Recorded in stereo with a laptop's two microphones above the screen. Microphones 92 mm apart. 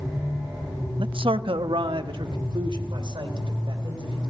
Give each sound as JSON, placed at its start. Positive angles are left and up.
{"t": 1.0, "sound": "a man speaking", "side_deg": -65, "distance_m": 0.6}